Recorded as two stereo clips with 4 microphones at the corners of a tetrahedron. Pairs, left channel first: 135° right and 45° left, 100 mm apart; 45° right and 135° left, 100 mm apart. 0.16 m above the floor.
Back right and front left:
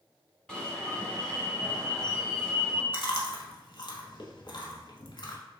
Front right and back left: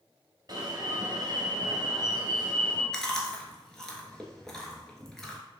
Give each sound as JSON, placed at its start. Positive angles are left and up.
{"t": 0.5, "sound": "an alarm", "azimuth_deg": 150, "distance_m": 1.2}
{"t": 2.9, "sound": "chewing", "azimuth_deg": -125, "distance_m": 1.0}